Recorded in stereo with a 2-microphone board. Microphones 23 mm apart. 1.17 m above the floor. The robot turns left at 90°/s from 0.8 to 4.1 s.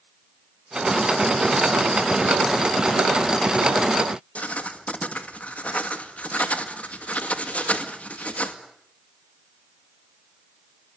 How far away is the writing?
About 1.9 m.